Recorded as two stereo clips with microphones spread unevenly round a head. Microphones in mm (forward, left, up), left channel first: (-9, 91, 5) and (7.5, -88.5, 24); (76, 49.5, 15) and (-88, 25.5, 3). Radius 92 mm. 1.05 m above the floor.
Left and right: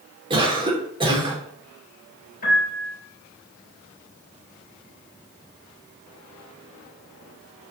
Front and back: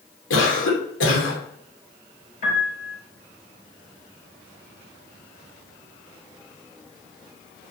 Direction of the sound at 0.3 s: 20° right.